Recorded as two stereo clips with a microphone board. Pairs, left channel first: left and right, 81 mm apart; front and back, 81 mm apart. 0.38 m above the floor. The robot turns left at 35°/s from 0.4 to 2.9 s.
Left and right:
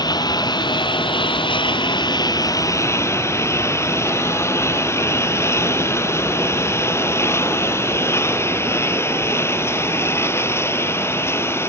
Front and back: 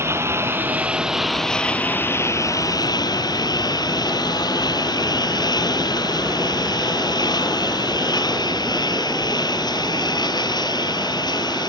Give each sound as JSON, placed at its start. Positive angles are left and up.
{"t": 0.0, "sound": "a lawn mower", "azimuth_deg": 125}